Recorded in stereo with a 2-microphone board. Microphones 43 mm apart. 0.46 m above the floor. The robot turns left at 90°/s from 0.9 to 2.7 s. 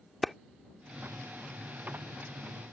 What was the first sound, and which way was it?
A clap, centre (ahead or behind).